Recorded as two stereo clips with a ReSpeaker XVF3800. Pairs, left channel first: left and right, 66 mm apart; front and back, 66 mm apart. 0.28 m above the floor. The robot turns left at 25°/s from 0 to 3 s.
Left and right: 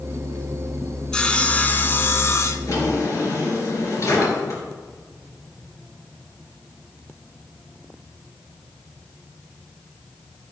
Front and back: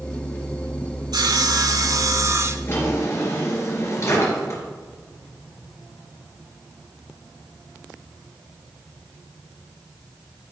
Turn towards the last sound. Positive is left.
turn(degrees=45)